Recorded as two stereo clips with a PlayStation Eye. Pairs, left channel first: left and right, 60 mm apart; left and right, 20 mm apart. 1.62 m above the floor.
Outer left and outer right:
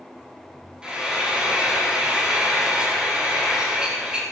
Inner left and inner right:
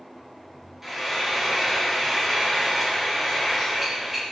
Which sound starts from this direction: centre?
Frying, at 0.8 s.